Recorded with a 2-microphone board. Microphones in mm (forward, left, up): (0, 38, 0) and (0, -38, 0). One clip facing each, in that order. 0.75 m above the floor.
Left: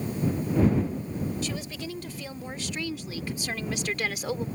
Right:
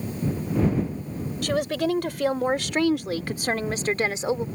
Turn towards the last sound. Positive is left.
turn(degrees=-20)  # may be behind; listen again after turning